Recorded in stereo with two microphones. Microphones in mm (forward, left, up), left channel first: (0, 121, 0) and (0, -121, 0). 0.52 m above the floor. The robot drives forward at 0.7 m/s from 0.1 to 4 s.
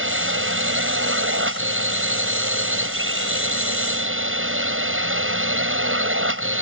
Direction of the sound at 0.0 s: 60° right (ahead or behind).